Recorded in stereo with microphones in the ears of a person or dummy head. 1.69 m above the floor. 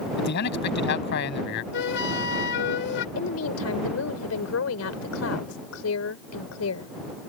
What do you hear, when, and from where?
0.2 s a man speaking: 60° left (ahead or behind)
1.7 s a flute: 65° left (ahead or behind)
3.1 s a woman speaking: 90° left